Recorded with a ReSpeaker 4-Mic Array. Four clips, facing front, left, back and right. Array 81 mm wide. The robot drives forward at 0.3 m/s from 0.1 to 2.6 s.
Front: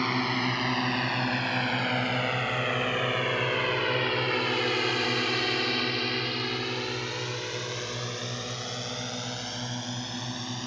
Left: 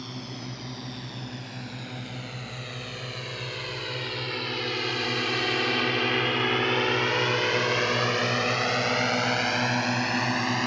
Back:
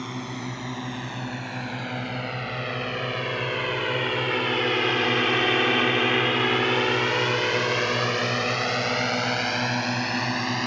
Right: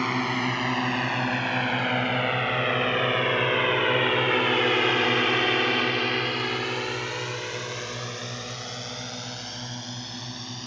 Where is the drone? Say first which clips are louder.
Right 13 dB, front 5 dB; 65° right; by 10.7 s 125° left.